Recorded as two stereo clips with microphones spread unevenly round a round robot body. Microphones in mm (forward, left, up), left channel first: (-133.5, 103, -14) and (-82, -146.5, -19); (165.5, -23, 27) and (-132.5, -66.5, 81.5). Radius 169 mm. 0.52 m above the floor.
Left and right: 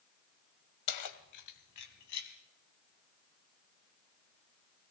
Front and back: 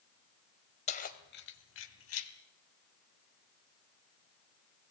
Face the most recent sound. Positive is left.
turn(degrees=50)